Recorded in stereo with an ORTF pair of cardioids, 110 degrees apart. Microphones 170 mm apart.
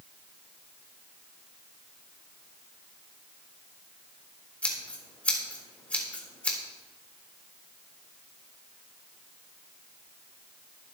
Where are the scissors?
10° left, 3.5 m.